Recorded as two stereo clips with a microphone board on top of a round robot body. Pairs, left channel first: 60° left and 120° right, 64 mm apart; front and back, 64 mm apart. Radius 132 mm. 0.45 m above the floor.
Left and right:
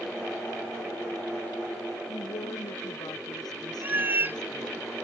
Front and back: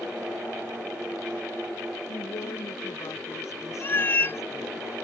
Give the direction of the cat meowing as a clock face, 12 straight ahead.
2 o'clock.